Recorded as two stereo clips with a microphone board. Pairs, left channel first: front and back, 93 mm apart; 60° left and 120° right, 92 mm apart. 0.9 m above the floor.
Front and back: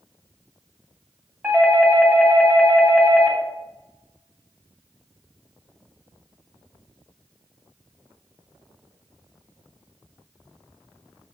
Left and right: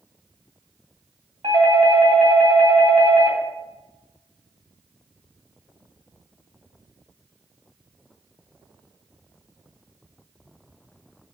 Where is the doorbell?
105° right, 3 m.